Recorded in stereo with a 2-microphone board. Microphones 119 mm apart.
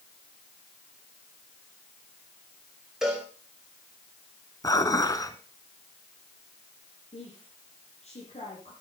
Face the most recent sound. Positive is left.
turn(degrees=60)  # may be behind; listen again after turning